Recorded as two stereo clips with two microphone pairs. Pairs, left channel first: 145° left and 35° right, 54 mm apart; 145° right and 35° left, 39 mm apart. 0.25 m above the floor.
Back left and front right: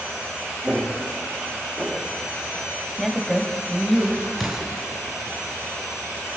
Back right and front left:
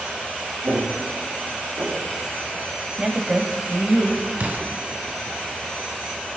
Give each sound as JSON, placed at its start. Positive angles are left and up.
{"t": 0.6, "sound": "footsteps", "azimuth_deg": 35, "distance_m": 4.0}
{"t": 3.0, "sound": "a woman speaking", "azimuth_deg": 60, "distance_m": 1.2}
{"t": 4.4, "sound": "an explosion", "azimuth_deg": 50, "distance_m": 1.9}